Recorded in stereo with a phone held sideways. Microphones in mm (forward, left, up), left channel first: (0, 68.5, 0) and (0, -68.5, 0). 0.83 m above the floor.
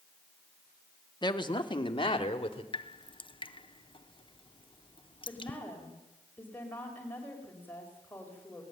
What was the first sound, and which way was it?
A woman speaking, 30° left (ahead or behind).